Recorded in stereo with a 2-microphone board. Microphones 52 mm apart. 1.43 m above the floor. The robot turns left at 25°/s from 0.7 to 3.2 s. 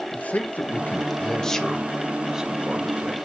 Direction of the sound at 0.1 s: 30° left (ahead or behind).